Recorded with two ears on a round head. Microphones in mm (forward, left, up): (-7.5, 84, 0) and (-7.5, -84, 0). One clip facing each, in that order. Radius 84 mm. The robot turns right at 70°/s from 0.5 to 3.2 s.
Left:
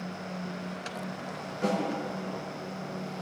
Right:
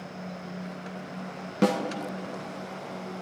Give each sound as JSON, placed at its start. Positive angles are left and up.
{"t": 1.6, "sound": "a snare drum", "side_deg": -70, "distance_m": 0.8}